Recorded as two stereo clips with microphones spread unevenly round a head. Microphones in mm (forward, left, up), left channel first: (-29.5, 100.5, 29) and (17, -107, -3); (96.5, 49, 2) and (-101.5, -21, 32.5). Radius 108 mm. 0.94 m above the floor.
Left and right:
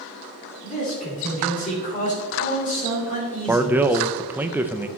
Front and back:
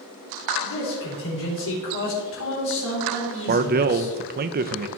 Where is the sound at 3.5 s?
140° right, 0.5 m.